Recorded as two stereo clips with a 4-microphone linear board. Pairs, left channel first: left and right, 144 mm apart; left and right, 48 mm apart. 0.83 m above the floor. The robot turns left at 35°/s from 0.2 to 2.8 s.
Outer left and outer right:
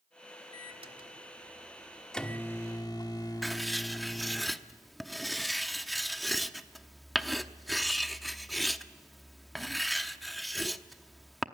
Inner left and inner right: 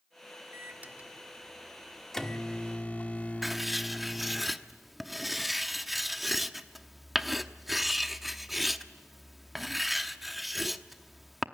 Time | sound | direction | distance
0.5 | a microwave | 130° right | 1.5 m
3.4 | writing | centre (ahead or behind) | 0.8 m